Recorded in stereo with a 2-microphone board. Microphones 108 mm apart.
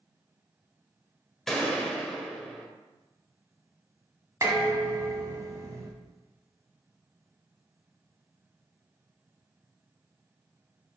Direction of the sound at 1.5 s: 5° left (ahead or behind).